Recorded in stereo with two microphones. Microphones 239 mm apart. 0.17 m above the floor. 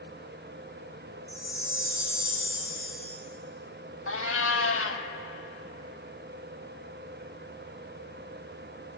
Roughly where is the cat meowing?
Left.